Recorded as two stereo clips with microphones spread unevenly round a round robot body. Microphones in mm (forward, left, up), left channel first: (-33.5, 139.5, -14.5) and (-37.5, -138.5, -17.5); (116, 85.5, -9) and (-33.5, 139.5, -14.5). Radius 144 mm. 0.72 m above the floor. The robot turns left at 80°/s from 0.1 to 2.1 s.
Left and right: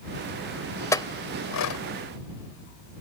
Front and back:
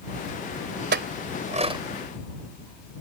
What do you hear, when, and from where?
0.9 s a clink: 170° left; by 1.8 s 95° left